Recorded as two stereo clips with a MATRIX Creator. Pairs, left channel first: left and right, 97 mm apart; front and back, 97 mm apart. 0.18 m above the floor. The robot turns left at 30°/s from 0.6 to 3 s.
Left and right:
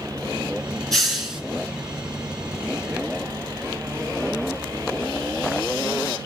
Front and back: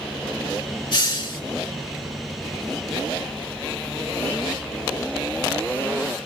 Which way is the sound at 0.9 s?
5° left.